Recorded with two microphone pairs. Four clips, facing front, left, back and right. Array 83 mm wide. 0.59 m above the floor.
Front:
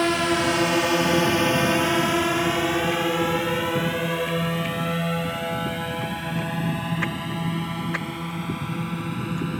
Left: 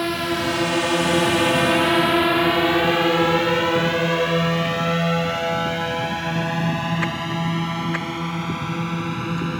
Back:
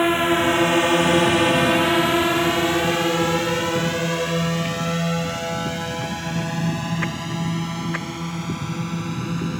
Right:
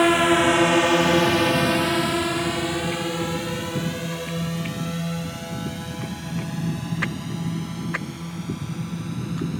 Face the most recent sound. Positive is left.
turn(degrees=90)